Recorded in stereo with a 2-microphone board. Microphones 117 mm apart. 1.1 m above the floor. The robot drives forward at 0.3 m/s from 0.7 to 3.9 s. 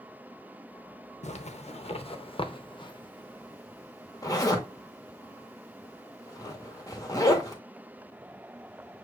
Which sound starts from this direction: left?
A zipper, at 1.2 s.